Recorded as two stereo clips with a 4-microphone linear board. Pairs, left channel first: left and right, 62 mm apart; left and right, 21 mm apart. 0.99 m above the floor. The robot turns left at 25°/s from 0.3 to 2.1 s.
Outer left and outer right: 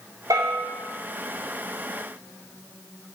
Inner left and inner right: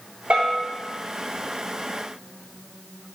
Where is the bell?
75° right (ahead or behind), 3.5 m; by 0.6 s 80° right, 3.5 m.